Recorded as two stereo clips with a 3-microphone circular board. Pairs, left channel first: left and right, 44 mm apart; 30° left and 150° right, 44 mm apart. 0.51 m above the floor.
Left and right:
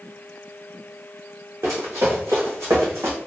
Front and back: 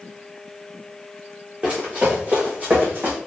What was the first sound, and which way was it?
Running footsteps, 90° right.